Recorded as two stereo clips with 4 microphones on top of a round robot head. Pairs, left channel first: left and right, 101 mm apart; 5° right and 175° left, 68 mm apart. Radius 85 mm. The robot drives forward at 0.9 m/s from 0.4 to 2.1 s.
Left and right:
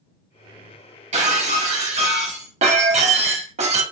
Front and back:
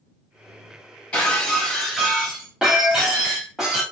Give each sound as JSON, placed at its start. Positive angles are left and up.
{"t": 1.1, "sound": "breaking glass", "azimuth_deg": -85, "distance_m": 3.0}